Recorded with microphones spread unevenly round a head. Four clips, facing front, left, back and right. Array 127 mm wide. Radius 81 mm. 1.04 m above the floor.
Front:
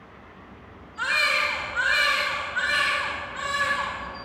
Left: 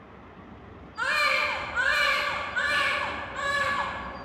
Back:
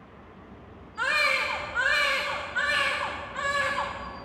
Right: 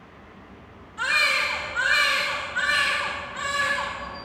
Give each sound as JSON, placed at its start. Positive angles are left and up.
{"t": 1.0, "sound": "a baby crying", "azimuth_deg": 160, "distance_m": 1.8}